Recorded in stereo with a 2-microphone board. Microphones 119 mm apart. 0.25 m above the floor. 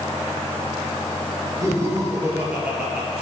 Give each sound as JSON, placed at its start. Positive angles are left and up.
{"t": 1.6, "sound": "laughter", "side_deg": -25, "distance_m": 5.0}